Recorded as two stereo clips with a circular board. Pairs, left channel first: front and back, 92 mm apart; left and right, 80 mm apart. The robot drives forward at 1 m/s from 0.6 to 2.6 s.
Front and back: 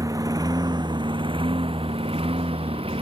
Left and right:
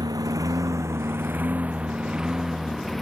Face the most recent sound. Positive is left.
turn(degrees=180)